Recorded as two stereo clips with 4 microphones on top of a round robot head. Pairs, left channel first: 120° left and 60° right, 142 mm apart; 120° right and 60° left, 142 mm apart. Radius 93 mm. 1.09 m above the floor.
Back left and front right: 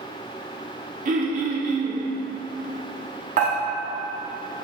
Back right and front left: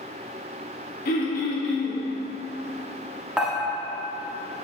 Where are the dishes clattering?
25° right, 1.3 m.